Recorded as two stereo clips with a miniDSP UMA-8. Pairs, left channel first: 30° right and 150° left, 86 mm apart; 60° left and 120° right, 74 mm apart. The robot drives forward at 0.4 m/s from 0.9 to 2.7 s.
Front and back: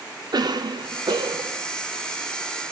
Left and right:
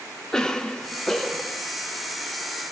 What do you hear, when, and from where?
0.3 s a cough: 140° left, 0.5 m; by 1.6 s 155° left, 0.7 m